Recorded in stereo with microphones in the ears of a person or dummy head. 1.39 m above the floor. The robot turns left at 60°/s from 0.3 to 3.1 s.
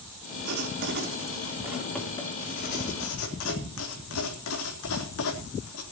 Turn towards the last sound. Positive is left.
turn(degrees=100)